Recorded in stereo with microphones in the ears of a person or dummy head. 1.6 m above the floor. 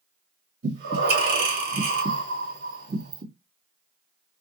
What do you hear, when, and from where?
0.6 s breathing: 60° right (ahead or behind), 2 m